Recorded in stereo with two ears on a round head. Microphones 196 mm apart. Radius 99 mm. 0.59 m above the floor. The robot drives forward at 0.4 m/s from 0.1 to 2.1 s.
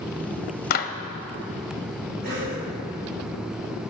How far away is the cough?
About 4 m.